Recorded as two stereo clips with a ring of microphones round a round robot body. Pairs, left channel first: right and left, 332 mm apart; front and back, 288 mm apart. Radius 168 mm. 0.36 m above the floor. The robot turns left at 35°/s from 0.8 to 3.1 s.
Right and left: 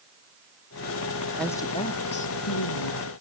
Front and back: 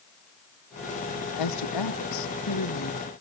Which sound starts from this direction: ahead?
A woman speaking, at 1.4 s.